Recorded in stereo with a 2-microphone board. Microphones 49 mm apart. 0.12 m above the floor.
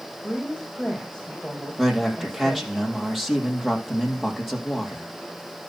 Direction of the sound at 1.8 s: 5° right (ahead or behind).